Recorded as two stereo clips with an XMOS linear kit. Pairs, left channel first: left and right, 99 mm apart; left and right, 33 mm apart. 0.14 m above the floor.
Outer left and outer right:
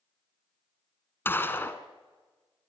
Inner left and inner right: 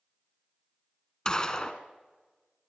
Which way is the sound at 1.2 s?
20° left (ahead or behind).